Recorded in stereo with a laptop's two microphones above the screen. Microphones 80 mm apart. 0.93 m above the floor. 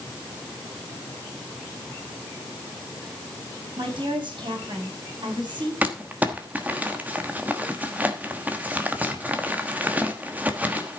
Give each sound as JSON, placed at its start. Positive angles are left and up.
{"t": 3.8, "sound": "a woman speaking", "side_deg": -80, "distance_m": 5.0}
{"t": 5.8, "sound": "crumpling", "side_deg": -20, "distance_m": 1.2}